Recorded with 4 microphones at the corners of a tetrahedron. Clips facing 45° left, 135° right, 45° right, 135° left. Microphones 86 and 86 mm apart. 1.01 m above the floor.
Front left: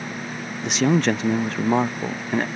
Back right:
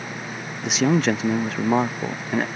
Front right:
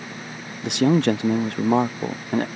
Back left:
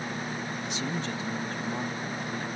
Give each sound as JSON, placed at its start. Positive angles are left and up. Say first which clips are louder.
{"t": 0.6, "sound": "a man speaking", "louder": "even, front right 18 dB", "azimuth_deg": -45}